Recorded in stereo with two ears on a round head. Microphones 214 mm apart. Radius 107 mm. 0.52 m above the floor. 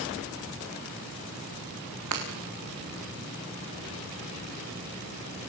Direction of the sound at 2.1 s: 80° right.